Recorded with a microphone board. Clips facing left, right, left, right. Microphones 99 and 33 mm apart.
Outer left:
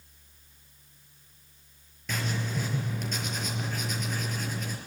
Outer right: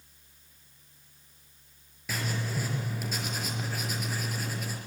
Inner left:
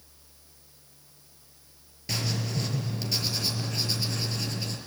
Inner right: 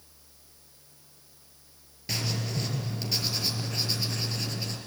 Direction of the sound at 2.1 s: 5° right (ahead or behind).